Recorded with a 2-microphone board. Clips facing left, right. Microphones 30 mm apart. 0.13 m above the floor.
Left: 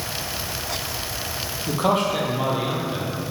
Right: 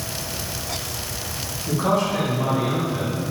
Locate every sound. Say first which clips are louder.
1.7 s a man speaking: even; 50° left (ahead or behind), 3.5 m; by 3.3 s 40° left (ahead or behind), 4 m